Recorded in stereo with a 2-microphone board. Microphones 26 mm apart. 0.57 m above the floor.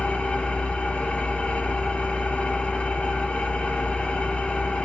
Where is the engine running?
55° left (ahead or behind), 3 m.